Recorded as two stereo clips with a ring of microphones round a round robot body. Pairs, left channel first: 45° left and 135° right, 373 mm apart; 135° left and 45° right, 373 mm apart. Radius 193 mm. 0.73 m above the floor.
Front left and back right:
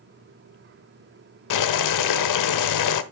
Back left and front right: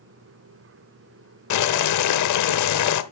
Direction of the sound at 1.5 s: 85° left.